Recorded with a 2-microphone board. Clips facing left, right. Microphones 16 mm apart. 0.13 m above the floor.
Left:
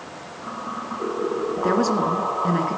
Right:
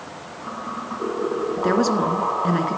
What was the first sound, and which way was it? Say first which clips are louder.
A woman speaking: right 1 dB; 15° right (ahead or behind).